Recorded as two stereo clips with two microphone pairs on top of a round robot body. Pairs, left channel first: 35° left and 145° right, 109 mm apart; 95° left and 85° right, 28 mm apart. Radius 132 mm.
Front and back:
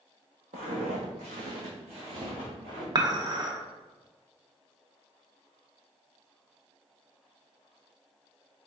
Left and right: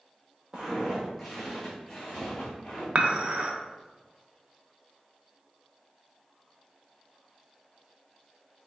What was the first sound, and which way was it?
Footsteps, 135° right.